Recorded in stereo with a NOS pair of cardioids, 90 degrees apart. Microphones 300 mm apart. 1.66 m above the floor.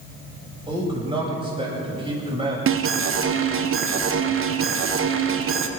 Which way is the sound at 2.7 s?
50° right.